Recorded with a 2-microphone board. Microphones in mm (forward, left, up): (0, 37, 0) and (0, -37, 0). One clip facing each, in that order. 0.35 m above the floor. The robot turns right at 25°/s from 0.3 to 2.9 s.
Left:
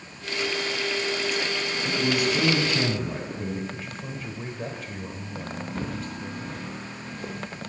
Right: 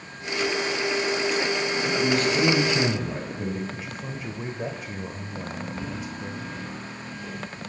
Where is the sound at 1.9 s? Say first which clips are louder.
Right 1 dB; 20° left (ahead or behind), 2 m; by 3.6 s 5° right (ahead or behind), 2 m.